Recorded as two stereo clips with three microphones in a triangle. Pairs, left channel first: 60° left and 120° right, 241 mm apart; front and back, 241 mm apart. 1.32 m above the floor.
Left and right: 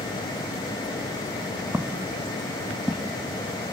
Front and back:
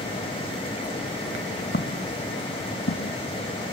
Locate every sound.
1.7 s footsteps: 40° right; by 3.2 s 25° right